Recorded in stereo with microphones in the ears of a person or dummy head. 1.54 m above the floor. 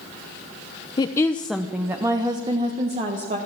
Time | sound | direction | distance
1.0 | a woman speaking | 30° left (ahead or behind) | 0.7 m